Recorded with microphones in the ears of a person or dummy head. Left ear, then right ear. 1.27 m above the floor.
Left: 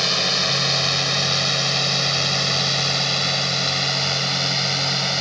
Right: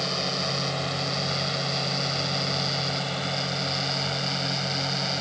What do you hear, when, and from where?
0.0 s a drone: 75° left (ahead or behind); by 5.2 s 80° left